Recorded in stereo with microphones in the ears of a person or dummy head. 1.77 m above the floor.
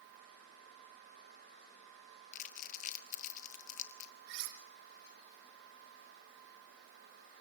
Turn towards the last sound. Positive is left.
turn(degrees=-70)  # may be behind; listen again after turning